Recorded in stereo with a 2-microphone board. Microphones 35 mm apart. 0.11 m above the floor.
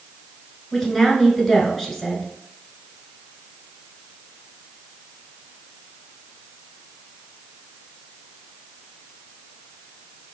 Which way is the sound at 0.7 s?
5° left (ahead or behind).